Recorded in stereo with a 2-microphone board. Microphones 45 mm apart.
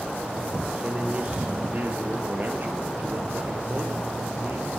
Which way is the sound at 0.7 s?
30° right (ahead or behind).